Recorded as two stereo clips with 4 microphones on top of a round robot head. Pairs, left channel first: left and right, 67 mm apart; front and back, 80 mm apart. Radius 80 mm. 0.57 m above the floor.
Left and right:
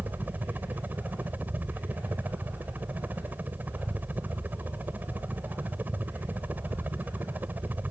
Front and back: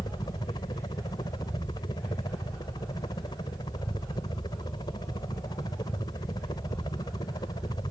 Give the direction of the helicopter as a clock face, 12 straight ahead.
1 o'clock.